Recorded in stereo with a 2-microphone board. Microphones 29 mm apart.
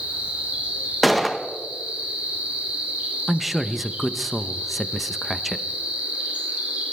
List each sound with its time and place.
0.0 s an insect: 50° right (ahead or behind), 7 m
1.0 s a gunshot: centre (ahead or behind), 1.1 m
3.3 s a man speaking: 5° right (ahead or behind), 0.7 m